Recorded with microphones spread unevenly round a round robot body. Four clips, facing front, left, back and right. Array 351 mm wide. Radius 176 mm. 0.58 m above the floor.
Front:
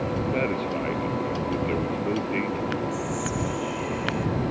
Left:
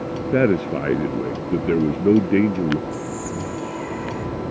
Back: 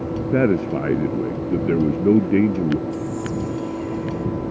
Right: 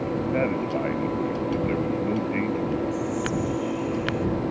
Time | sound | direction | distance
0.3 | a man speaking | 145° left | ?
2.9 | whispering | 75° left | ?